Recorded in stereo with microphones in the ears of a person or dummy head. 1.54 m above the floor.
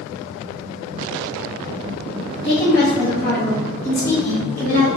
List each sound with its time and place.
2.4 s a woman speaking: 30° left (ahead or behind), 0.8 m; by 4.9 s 15° left (ahead or behind), 2 m